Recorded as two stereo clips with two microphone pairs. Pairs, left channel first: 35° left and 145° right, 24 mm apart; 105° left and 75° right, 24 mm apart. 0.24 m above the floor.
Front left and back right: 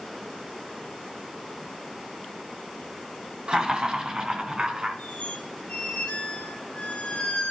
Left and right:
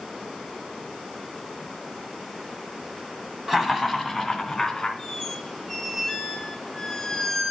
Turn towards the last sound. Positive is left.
turn(degrees=20)